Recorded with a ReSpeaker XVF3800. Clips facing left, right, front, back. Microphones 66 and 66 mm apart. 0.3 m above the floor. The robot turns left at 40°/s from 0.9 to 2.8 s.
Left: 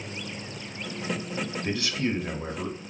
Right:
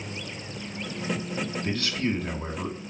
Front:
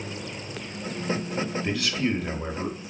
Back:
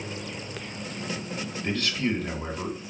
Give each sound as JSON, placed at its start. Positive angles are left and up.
{"t": 1.6, "sound": "a man speaking", "azimuth_deg": 70, "distance_m": 0.8}